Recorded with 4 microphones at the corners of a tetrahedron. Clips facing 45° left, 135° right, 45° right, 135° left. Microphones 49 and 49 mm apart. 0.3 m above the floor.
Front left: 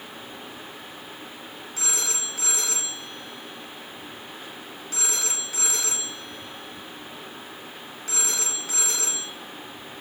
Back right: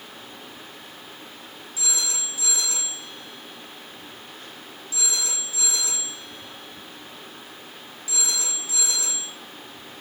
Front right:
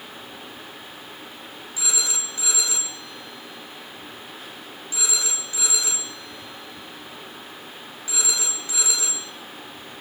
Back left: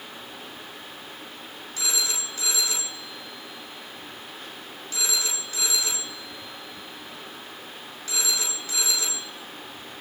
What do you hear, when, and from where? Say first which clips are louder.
1.8 s a phone ringing: even, even; 30° left, 2 m